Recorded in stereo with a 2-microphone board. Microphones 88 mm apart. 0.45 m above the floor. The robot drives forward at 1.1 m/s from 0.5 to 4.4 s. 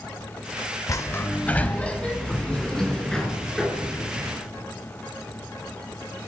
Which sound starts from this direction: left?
A sliding door, at 0.9 s.